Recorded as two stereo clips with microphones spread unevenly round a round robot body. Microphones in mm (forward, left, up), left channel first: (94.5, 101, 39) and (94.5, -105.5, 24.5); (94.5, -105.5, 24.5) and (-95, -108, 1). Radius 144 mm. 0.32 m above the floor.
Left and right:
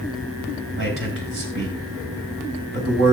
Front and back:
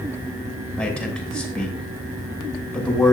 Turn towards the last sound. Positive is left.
turn(degrees=-85)